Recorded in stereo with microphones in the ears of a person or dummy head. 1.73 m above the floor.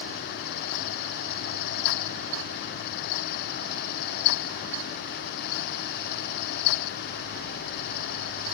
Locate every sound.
Only background noise.